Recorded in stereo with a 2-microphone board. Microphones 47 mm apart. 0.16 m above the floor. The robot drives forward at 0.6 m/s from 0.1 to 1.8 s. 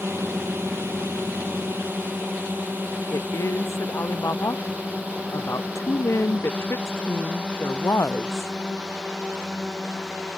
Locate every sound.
0.0 s a drone: 60° right (ahead or behind); by 10.4 s 10° right (ahead or behind)
3.1 s a woman speaking: 85° left